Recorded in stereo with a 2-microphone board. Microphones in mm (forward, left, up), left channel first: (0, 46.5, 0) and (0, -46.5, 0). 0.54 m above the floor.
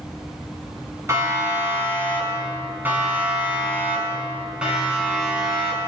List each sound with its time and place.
1.1 s a siren: 30° right (ahead or behind), 8 m; by 5.8 s 5° right (ahead or behind), 9 m